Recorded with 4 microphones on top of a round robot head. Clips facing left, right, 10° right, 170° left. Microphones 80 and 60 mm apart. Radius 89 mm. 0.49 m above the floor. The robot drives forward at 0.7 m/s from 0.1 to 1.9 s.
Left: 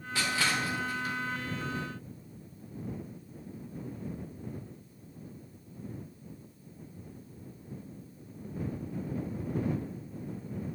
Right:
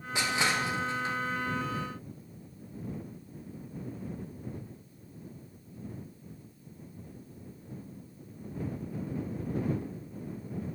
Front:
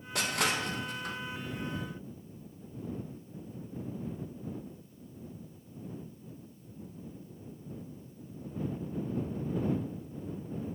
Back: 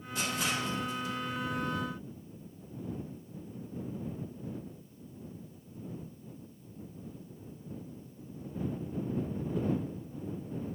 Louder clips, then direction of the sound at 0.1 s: Right 1 dB, front 2 dB; 20° right.